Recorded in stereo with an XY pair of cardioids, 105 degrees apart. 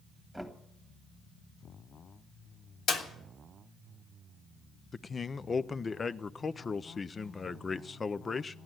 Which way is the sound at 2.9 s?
70° left.